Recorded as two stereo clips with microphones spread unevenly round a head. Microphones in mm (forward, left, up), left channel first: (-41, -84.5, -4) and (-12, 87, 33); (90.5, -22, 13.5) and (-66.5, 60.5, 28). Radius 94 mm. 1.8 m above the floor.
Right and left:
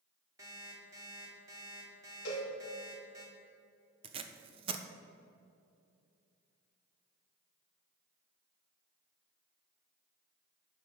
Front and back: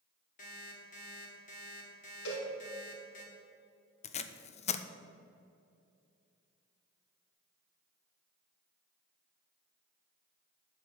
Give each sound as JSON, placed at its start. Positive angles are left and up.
{"t": 0.4, "sound": "an alarm clock", "azimuth_deg": 15, "distance_m": 2.0}
{"t": 2.2, "sound": "a cowbell", "azimuth_deg": -55, "distance_m": 3.0}
{"t": 4.0, "sound": "tape being pulled", "azimuth_deg": 25, "distance_m": 0.6}